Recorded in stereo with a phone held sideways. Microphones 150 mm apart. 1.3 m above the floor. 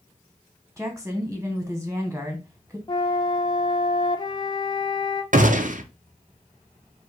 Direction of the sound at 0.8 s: 10° right (ahead or behind).